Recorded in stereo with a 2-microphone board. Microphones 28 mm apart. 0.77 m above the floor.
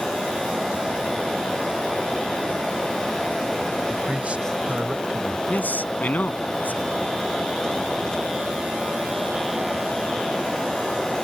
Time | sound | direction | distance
3.9 | a man speaking | 40° right (ahead or behind) | ?
5.5 | a man speaking | 70° left (ahead or behind) | ?